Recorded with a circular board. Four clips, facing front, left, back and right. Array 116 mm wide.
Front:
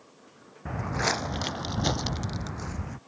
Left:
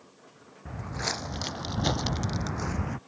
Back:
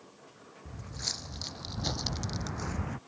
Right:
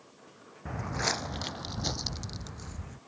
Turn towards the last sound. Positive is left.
turn(degrees=95)